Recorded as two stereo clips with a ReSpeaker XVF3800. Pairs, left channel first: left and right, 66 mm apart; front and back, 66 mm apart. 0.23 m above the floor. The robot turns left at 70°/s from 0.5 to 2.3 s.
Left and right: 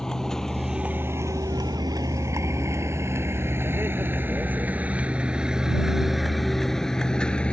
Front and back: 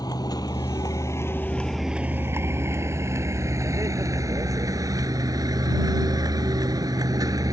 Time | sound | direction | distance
0.0 | a vehicle | 10° left | ?